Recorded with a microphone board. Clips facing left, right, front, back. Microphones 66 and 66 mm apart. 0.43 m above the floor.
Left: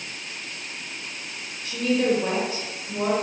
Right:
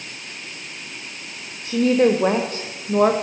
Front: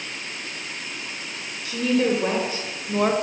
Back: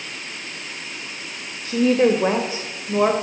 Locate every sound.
1.6 s a woman speaking: 140° right, 1.4 m; by 3.1 s 100° right, 1.6 m